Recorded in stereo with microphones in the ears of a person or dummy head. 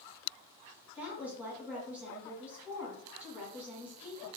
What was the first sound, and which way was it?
A woman speaking, 5° right (ahead or behind).